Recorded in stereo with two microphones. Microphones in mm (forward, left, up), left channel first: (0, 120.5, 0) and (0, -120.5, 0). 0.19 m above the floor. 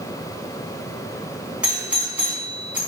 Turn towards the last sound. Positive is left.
turn(degrees=-5)  # may be behind; listen again after turning